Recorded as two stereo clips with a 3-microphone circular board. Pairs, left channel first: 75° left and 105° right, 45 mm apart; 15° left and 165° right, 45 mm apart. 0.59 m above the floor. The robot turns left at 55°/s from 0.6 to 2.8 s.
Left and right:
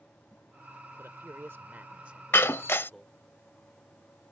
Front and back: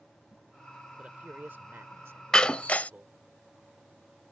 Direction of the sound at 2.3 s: 90° left.